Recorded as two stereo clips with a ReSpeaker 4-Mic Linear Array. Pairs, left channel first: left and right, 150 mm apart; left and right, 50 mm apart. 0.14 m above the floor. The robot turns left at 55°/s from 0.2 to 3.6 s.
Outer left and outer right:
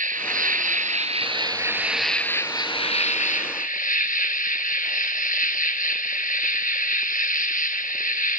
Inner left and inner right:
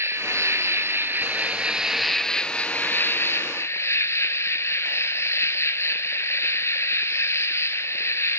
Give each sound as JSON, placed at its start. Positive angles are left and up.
{"t": 0.0, "sound": "an insect", "azimuth_deg": -80, "distance_m": 0.9}